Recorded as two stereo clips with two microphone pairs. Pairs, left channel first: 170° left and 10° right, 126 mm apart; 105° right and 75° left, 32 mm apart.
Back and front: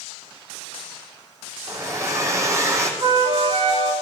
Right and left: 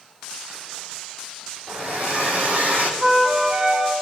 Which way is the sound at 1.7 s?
55° left.